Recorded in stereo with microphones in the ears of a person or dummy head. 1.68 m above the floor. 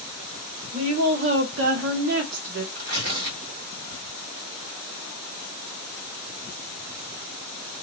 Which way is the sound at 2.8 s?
45° right (ahead or behind).